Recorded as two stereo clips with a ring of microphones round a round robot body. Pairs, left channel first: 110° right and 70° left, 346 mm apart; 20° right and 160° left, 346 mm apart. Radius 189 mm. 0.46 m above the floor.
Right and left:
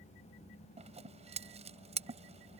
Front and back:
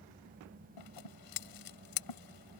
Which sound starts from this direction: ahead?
Scissors, at 0.8 s.